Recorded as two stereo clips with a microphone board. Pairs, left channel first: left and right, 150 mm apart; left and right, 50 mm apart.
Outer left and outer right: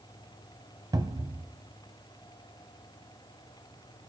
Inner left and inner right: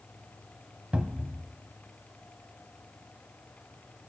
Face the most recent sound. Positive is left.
turn(degrees=-25)  # may be behind; listen again after turning